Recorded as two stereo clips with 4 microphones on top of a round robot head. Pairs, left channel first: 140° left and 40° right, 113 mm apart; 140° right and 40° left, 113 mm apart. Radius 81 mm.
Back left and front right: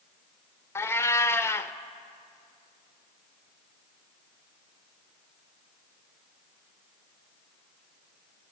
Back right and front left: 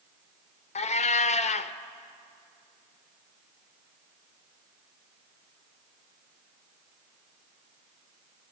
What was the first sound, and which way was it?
A cat meowing, 150° right.